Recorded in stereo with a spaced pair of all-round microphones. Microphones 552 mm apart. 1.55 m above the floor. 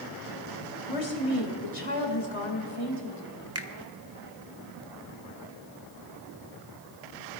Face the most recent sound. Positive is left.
turn(degrees=-25)  # may be behind; listen again after turning